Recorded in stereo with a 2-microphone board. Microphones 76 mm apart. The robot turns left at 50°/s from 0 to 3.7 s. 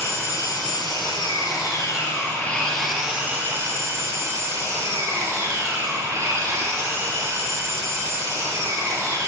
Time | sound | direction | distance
0.0 | an engine running | 140° left | 1.9 m